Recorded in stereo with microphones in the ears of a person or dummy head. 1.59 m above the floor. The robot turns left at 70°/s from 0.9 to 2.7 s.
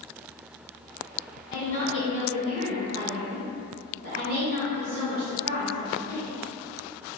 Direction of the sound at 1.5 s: 40° left.